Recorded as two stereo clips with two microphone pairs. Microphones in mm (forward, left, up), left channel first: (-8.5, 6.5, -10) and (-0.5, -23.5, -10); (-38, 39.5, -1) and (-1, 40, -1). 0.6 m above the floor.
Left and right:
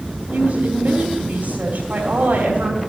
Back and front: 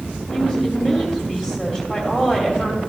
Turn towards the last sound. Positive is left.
turn(degrees=-75)